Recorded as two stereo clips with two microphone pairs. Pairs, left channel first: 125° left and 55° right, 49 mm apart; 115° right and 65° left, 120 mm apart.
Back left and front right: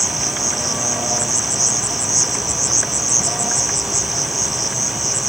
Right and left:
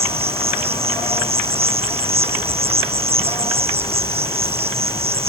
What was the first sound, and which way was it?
An insect, 35° left.